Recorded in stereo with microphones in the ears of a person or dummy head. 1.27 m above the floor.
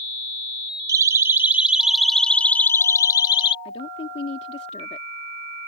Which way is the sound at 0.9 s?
20° right (ahead or behind).